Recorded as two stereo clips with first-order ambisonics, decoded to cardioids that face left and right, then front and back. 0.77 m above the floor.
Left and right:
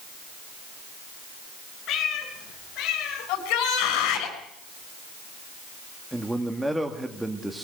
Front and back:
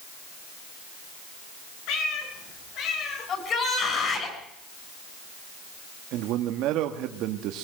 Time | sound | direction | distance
1.9 | a cat meowing | 35° left | 3.5 m
3.3 | a shout | 60° left | 7.5 m
6.1 | a man speaking | 175° right | 1.6 m